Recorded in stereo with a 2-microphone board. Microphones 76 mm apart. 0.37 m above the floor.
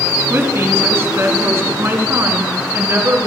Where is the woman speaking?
30° right (ahead or behind), 4 m; by 3.3 s 35° right (ahead or behind), 6 m.